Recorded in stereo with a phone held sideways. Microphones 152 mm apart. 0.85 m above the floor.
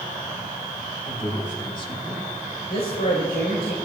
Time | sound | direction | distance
1.1 | a man speaking | 50° left (ahead or behind) | 4.5 m
2.7 | a woman speaking | 75° left (ahead or behind) | 4 m